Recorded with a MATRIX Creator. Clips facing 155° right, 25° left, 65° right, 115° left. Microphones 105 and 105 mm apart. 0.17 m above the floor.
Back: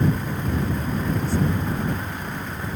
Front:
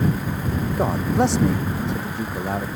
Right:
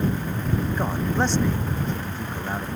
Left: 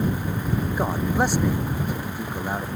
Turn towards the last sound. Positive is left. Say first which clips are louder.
# front 6 dB, left 3 dB
turn(degrees=35)